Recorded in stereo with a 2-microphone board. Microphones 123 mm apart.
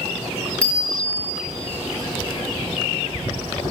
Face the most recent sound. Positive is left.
turn(degrees=10)  # may be behind; listen again after turning